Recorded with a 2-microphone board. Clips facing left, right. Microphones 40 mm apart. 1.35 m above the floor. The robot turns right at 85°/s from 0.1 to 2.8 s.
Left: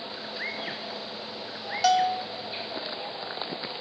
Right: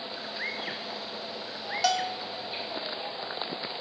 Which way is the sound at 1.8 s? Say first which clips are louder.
Left 6 dB; straight ahead.